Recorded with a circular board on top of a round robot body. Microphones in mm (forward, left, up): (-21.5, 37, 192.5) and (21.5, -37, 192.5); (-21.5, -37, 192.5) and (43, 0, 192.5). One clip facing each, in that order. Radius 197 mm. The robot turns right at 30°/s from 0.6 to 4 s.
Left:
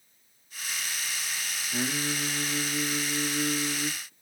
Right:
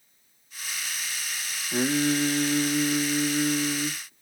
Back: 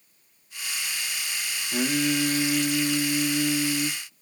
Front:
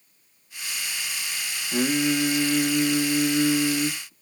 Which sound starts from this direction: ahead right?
Singing, at 1.7 s.